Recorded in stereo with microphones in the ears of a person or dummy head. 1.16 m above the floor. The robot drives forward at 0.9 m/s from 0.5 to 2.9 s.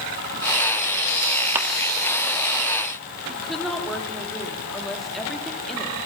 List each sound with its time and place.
1.6 s a clap: 10° right (ahead or behind), 1.4 m
3.3 s a woman speaking: centre (ahead or behind), 3 m